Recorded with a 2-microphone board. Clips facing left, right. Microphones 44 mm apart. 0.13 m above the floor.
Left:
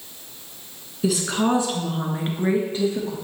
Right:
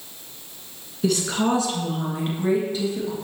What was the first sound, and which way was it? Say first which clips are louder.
A woman speaking: even; 5° left (ahead or behind).